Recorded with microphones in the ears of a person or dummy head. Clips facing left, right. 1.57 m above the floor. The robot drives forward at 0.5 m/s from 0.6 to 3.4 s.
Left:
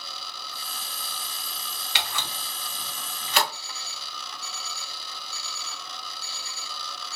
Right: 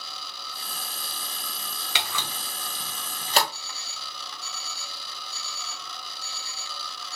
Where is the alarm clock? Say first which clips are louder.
Left 1 dB; 5° left (ahead or behind), 1.9 m.